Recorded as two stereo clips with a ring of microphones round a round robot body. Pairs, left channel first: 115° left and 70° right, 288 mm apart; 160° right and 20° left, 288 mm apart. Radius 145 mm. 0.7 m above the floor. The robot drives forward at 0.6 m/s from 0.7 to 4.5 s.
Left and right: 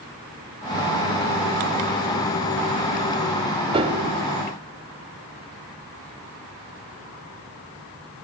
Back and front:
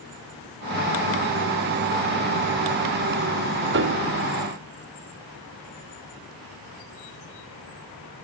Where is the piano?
5° right, 1.4 m.